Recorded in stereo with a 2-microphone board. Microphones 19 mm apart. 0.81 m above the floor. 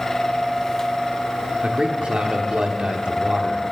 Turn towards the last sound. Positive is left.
turn(degrees=-65)  # may be behind; listen again after turning